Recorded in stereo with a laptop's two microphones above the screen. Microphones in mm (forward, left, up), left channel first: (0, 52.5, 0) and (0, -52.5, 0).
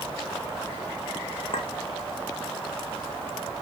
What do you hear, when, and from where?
1.5 s a clink: 60° left (ahead or behind), 0.7 m